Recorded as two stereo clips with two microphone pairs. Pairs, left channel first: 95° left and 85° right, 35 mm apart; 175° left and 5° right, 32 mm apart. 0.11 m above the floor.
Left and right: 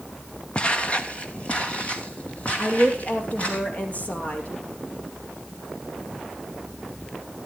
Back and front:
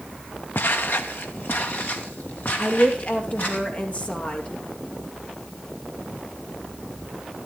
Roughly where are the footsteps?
Behind.